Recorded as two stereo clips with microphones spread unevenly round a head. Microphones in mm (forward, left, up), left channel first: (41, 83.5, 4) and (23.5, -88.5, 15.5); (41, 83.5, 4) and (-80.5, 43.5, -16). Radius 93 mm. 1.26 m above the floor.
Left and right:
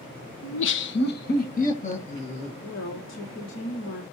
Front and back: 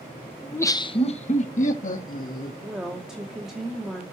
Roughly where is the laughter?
Left.